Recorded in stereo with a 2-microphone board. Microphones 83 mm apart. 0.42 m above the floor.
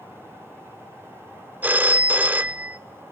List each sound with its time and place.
1.6 s a phone ringing: 20° right (ahead or behind), 0.5 m